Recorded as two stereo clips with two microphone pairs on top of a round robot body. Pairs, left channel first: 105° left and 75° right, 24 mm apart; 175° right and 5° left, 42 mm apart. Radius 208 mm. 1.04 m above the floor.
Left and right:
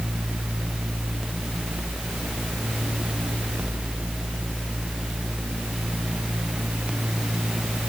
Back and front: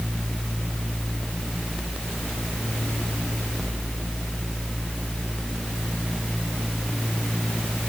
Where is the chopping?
No chopping in this recording.